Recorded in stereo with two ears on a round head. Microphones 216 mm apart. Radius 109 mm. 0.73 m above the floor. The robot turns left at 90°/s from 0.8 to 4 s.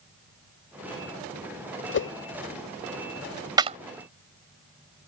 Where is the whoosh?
50° left (ahead or behind); by 2.1 s 65° left (ahead or behind).